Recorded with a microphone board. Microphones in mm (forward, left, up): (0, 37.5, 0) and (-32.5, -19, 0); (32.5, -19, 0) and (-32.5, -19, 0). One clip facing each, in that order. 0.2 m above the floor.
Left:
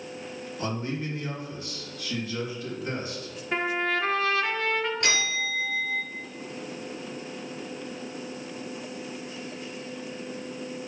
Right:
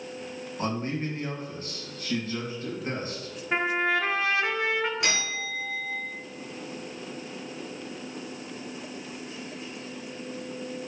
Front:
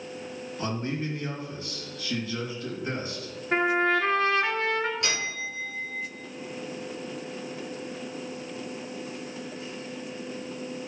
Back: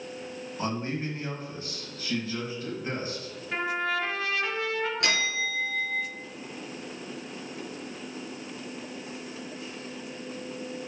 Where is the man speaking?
135° right, 2 m.